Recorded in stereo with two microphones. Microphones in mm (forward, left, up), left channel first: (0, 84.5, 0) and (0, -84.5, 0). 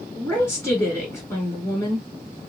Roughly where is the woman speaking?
Centre.